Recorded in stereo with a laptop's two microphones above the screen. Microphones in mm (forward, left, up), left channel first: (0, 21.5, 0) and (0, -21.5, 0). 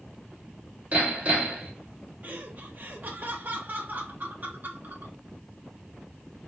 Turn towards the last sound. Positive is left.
turn(degrees=-45)  # may be behind; listen again after turning